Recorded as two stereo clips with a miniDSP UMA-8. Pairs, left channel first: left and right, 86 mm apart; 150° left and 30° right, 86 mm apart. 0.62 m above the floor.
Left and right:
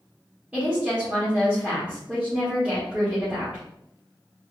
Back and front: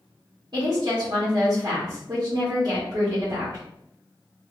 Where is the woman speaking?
20° right, 1.8 m.